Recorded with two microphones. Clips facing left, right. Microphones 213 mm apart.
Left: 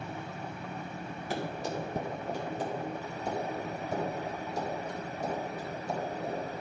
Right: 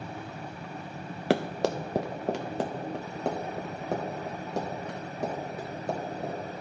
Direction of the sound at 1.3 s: 80° right.